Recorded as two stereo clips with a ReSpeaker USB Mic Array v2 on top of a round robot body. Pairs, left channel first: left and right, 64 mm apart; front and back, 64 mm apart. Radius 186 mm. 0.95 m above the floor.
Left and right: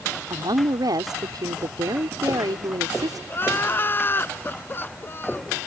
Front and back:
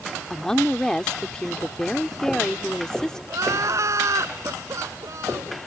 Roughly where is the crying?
Behind left.